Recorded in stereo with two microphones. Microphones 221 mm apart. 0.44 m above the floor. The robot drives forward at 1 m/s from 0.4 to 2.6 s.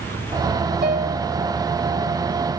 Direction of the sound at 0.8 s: 50° right (ahead or behind).